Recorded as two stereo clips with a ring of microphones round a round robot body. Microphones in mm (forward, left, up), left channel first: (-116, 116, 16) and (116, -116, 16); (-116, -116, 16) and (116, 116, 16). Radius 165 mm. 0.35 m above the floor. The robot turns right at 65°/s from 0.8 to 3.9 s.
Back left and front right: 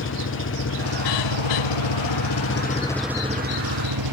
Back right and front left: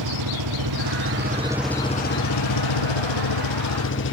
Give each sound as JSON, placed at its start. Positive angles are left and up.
{"t": 0.0, "sound": "an engine running", "azimuth_deg": 80}